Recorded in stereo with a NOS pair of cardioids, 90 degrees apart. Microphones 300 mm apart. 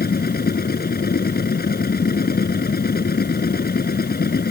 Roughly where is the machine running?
Ahead left.